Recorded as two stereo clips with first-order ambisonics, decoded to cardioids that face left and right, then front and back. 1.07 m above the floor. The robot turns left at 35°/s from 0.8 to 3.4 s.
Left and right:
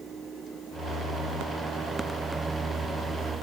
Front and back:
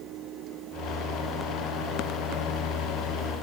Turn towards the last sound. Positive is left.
No sound to turn to.